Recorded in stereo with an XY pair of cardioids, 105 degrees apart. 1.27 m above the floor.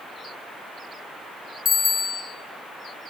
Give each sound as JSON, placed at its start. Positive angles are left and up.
{"t": 1.6, "sound": "a bicycle bell", "azimuth_deg": 25, "distance_m": 6.5}